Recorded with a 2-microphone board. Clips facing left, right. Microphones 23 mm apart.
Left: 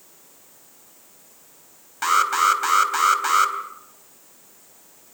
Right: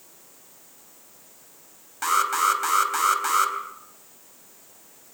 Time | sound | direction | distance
2.0 | an alarm | 20° left (ahead or behind) | 3 m